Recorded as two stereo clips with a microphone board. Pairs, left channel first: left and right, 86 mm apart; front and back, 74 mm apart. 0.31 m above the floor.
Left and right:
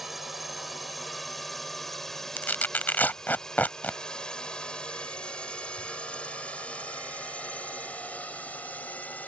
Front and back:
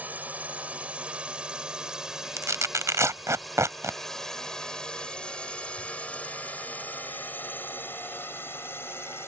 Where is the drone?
175° right; by 9.3 s 30° left.